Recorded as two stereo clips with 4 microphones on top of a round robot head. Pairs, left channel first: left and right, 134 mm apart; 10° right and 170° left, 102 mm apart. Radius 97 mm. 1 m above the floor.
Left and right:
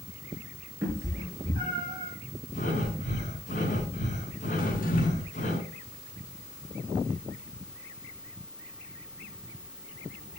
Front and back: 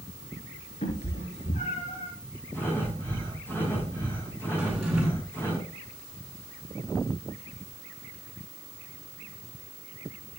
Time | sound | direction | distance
0.8 | a cat meowing | 15° right | 4 m
2.5 | breathing | 60° left | 9 m
4.6 | a drawer | 90° left | 6 m